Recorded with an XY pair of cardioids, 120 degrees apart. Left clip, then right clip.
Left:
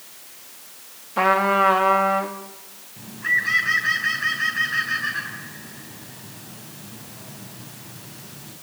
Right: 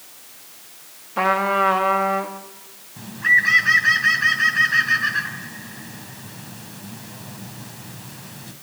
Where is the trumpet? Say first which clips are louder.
Left 1 dB; 5° left, 2.5 m.